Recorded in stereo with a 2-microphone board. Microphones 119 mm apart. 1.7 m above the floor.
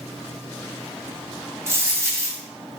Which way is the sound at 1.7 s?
25° right (ahead or behind).